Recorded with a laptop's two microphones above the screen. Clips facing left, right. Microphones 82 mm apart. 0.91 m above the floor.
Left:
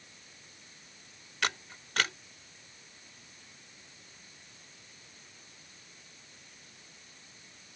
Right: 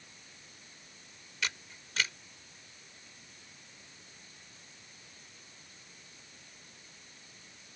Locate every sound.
1.4 s a camera shutter: 65° left (ahead or behind)